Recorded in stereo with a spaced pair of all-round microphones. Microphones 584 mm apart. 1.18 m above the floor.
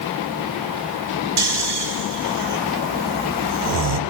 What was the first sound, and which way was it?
Snoring, 45° right (ahead or behind).